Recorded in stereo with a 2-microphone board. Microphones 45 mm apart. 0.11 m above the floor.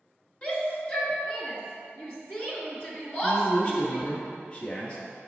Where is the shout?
30° left (ahead or behind), 1.7 m.